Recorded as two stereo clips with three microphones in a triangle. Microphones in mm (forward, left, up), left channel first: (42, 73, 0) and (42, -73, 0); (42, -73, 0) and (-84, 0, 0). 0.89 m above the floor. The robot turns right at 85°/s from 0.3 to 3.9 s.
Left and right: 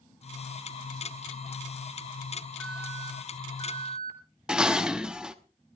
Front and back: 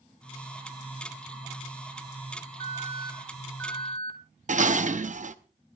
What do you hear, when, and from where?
2.6 s an alarm: 170° left, 2.5 m; by 4.2 s 80° right, 2.5 m
4.5 s dishes clattering: 175° right, 0.9 m